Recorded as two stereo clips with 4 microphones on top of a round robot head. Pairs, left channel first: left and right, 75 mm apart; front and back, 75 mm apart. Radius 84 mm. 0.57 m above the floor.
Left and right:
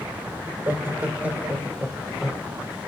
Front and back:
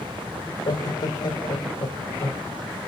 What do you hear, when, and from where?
0.5 s laughter: 30° right, 2.5 m; by 2.5 s straight ahead, 2 m